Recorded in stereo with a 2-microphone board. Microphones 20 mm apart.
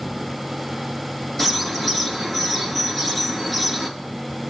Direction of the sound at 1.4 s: 10° left (ahead or behind).